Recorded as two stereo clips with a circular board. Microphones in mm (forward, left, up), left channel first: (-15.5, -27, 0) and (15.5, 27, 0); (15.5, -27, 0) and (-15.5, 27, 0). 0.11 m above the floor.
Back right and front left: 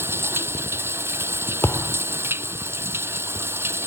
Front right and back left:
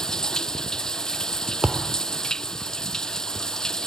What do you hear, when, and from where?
0.0 s running water: 15° left
1.6 s a thud: 165° right